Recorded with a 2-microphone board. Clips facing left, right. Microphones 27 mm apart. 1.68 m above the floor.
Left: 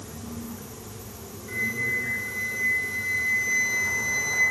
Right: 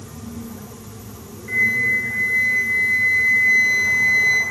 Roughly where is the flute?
Right.